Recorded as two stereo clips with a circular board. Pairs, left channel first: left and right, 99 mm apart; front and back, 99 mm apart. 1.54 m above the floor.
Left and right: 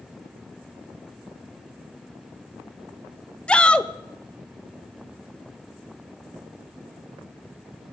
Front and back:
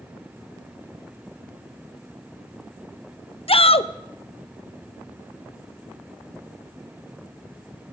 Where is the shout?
10° left, 0.7 m.